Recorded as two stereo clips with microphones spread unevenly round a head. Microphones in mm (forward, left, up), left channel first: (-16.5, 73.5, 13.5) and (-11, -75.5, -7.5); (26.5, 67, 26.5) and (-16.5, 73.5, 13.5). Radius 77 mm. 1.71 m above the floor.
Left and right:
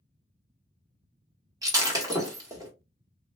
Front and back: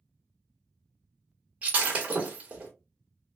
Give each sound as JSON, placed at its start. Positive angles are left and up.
{"t": 1.6, "sound": "breaking glass", "azimuth_deg": -125, "distance_m": 1.1}